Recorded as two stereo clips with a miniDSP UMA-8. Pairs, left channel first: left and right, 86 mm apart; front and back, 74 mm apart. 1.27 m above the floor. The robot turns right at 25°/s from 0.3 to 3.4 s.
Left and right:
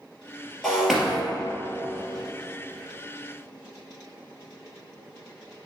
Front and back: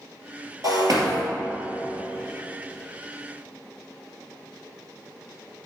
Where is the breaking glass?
175° left, 2 m; by 1.2 s 175° right, 2 m.